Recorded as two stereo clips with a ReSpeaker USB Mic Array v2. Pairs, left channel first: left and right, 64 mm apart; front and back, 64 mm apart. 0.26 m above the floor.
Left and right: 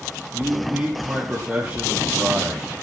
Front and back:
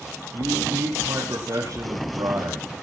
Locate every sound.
0.3 s a man speaking: 155° right, 6 m